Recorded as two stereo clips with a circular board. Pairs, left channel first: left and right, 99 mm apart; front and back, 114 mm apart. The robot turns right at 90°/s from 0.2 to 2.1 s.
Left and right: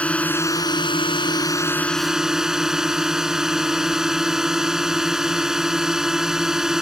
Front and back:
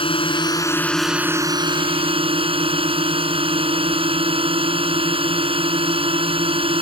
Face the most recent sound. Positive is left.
turn(degrees=-175)